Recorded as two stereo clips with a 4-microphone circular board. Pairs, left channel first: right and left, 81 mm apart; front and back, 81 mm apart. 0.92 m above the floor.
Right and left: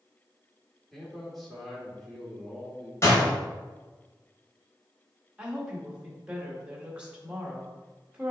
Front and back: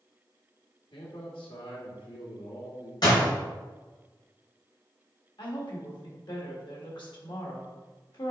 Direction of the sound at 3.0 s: 35° right.